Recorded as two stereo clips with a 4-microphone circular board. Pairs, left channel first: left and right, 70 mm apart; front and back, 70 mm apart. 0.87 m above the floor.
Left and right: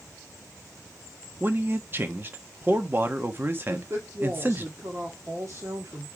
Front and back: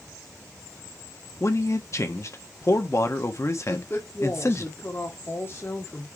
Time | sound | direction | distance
1.4 | a man speaking | 35° right | 1.2 m
3.7 | a woman speaking | 50° right | 1.7 m